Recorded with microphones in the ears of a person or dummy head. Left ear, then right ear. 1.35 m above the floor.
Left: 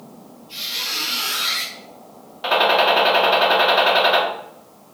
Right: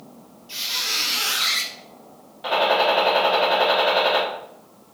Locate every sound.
0.5 s a squeak: 40° right (ahead or behind), 0.8 m
2.4 s a gunshot: 25° left (ahead or behind), 1.2 m